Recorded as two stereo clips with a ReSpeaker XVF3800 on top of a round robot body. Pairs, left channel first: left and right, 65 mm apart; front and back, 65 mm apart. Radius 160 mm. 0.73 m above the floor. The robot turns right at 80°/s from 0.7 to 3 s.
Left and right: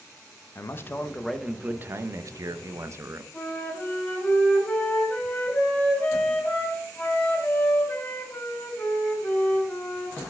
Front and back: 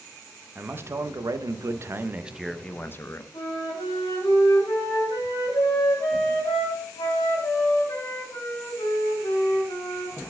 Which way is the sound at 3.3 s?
20° left.